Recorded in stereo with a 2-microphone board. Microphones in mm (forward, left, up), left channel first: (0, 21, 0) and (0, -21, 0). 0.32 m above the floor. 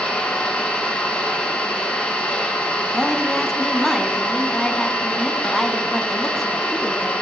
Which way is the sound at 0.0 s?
25° left (ahead or behind).